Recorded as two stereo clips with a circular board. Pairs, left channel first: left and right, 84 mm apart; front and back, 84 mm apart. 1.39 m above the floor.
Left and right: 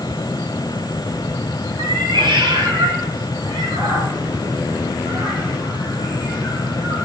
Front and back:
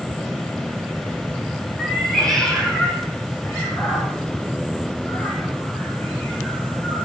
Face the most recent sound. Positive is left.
turn(degrees=-65)